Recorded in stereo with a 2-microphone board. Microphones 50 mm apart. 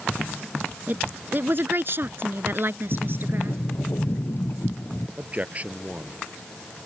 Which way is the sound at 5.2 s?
30° right (ahead or behind).